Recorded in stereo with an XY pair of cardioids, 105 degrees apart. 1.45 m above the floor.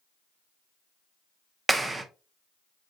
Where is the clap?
20° right, 0.6 m.